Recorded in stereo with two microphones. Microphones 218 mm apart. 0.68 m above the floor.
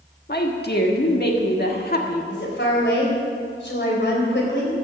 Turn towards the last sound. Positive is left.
turn(degrees=55)  # may be behind; listen again after turning